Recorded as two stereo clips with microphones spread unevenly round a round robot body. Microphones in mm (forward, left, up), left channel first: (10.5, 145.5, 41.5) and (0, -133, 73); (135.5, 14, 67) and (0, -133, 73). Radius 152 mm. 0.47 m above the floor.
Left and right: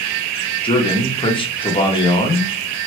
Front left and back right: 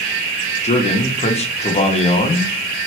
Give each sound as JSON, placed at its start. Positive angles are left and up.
{"t": 0.6, "sound": "a man speaking", "azimuth_deg": 45, "distance_m": 0.8}